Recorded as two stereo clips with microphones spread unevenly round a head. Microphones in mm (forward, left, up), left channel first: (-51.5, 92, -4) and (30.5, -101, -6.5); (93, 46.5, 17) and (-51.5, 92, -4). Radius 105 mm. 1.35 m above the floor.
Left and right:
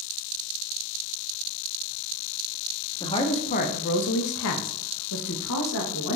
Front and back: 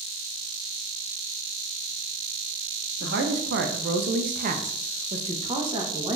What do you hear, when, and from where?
3.0 s a woman speaking: 175° right, 0.9 m; by 6.2 s 95° left, 1.4 m